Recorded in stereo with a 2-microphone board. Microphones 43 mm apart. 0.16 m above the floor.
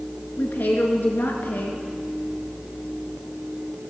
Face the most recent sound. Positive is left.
turn(degrees=50)  # may be behind; listen again after turning